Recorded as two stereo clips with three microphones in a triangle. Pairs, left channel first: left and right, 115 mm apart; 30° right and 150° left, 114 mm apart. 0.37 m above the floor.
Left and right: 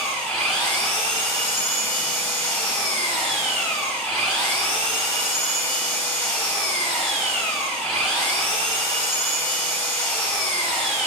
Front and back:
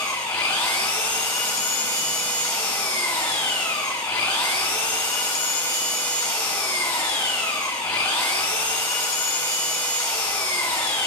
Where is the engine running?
15° left, 1.4 m.